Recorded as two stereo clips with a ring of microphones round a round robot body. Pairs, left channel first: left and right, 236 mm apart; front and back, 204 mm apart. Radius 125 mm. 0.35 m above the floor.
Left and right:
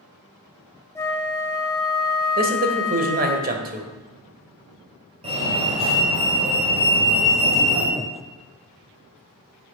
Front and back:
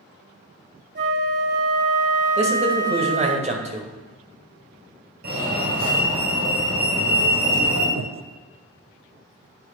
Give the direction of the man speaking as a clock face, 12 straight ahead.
4 o'clock.